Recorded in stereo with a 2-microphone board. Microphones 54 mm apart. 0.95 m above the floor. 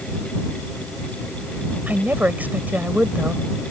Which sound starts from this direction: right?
A woman speaking, at 1.9 s.